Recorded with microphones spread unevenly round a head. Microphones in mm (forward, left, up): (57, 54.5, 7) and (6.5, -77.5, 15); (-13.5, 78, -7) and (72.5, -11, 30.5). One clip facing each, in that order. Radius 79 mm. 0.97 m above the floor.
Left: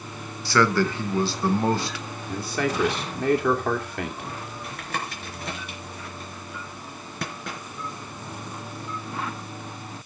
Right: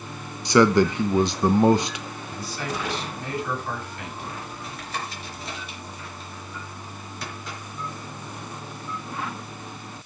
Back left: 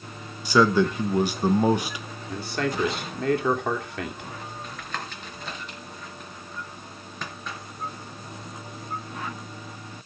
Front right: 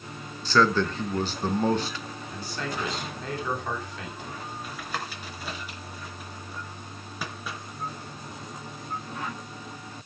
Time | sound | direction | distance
0.5 | a man speaking | straight behind | 0.7 m
2.3 | a man speaking | 115° left | 2.5 m
4.6 | tapping | 30° left | 3.5 m